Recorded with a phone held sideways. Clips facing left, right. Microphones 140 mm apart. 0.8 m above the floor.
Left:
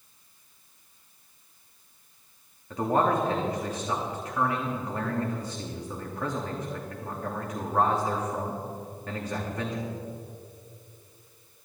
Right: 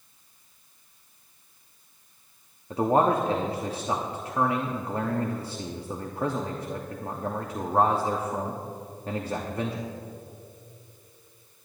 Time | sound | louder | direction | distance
2.7 | a man speaking | right 3 dB | 30° right (ahead or behind) | 1.0 m